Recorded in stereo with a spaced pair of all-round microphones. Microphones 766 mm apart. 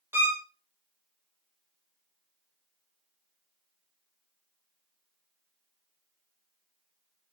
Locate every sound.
0.1 s a violin: 5° right (ahead or behind), 0.5 m